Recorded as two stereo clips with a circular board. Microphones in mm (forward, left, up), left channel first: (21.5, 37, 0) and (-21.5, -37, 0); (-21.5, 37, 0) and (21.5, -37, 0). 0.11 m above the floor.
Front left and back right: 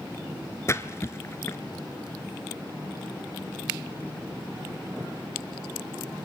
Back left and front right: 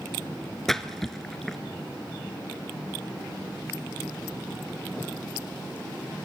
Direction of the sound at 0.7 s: 35° left.